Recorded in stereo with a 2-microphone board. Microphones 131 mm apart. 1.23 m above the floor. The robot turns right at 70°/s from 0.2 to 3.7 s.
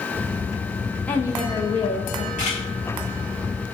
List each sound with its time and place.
1.1 s a woman speaking: 10° left, 0.5 m; by 2.3 s 95° left, 0.5 m
2.4 s a camera shutter: 75° left (ahead or behind), 1.3 m; by 2.6 s 60° left (ahead or behind), 1.3 m